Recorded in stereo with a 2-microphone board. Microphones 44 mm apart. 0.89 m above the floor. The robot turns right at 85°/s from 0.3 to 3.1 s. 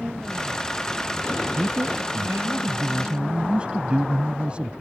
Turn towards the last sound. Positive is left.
turn(degrees=-25)